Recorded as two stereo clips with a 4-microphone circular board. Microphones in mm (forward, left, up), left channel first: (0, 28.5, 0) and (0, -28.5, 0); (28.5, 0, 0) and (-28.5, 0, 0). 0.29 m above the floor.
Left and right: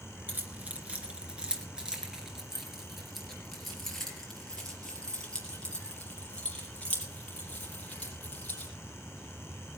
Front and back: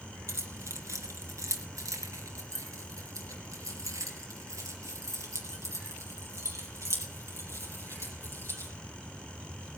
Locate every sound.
0.3 s keys jangling: 150° right, 2.5 m; by 8.7 s 155° left, 6 m